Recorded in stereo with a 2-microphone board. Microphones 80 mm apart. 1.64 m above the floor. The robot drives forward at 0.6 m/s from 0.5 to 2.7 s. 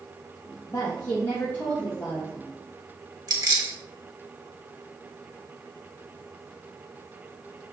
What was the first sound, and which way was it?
A woman speaking, 40° left (ahead or behind).